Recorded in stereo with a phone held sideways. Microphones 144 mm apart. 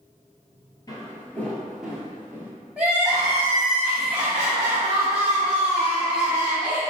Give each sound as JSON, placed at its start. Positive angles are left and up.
{"t": 0.9, "sound": "footsteps", "side_deg": 25, "distance_m": 1.4}
{"t": 2.8, "sound": "crying", "side_deg": -5, "distance_m": 1.9}